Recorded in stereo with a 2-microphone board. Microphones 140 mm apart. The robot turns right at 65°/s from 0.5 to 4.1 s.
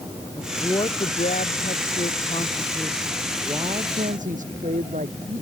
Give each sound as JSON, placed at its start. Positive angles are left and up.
{"t": 0.4, "sound": "a woman speaking", "azimuth_deg": 15}